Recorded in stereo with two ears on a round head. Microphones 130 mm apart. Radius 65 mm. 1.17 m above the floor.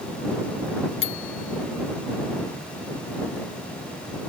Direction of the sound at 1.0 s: 40° left (ahead or behind).